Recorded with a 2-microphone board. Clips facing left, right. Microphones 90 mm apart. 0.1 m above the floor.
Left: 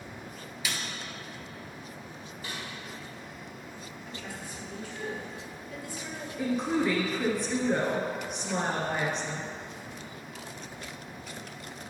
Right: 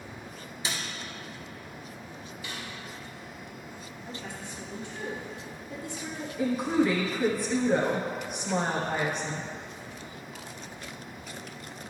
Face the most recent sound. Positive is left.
turn(degrees=0)  # may be behind; listen again after turning